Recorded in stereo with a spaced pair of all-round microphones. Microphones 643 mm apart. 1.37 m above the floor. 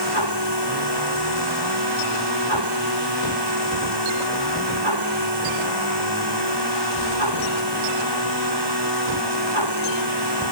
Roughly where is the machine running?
Right.